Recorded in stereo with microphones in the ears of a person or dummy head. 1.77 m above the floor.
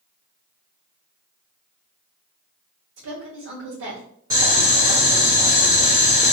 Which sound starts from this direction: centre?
Boiling, at 4.3 s.